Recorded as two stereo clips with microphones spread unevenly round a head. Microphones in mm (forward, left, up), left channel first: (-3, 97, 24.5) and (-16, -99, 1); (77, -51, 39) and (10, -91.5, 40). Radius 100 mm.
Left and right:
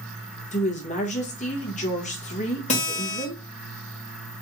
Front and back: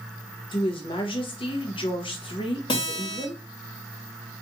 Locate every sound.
0.5 s a woman speaking: 30° left, 1.1 m
2.7 s a guitar: 40° left, 1.5 m